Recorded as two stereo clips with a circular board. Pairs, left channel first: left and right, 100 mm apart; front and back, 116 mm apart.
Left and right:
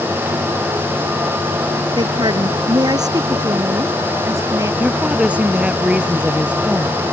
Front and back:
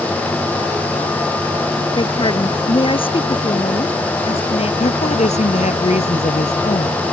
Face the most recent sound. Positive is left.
turn(degrees=-10)